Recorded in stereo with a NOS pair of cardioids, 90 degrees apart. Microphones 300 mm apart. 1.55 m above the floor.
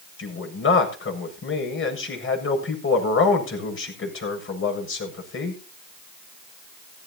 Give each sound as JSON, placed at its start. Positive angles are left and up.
{"t": 0.2, "sound": "a man speaking", "azimuth_deg": 45, "distance_m": 7.5}